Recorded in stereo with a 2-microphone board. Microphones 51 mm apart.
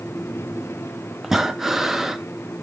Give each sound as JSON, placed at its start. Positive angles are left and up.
{"t": 1.2, "sound": "breathing", "side_deg": -10, "distance_m": 0.7}